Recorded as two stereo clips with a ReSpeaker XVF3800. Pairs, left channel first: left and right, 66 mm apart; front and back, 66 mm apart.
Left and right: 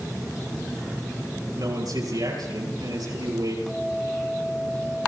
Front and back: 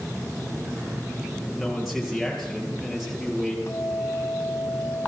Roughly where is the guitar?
Ahead.